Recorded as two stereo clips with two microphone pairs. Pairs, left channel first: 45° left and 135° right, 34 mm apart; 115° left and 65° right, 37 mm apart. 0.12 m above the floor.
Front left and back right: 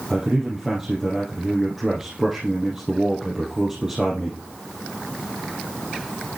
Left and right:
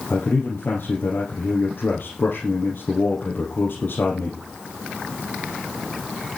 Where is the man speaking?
150° left, 3 m.